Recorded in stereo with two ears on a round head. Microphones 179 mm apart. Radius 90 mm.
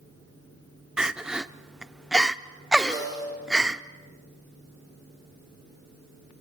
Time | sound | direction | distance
1.0 | crying | 5° right (ahead or behind) | 0.6 m
2.9 | a snare drum | 15° left (ahead or behind) | 7.5 m